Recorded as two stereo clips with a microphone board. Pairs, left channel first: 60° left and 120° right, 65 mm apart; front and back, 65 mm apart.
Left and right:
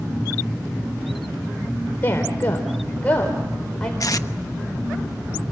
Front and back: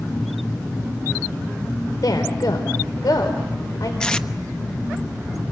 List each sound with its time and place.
2.0 s a woman speaking: 5° left, 3.5 m; by 3.9 s 15° right, 4 m
4.0 s tape being pulled: 75° left, 0.9 m